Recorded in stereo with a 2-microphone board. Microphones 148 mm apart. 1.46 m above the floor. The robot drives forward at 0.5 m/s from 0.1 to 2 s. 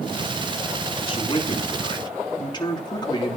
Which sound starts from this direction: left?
A man speaking, at 1.0 s.